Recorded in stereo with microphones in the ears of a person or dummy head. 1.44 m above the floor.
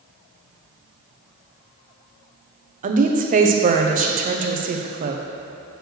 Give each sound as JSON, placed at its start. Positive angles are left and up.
{"t": 2.8, "sound": "a woman speaking", "side_deg": -40, "distance_m": 0.8}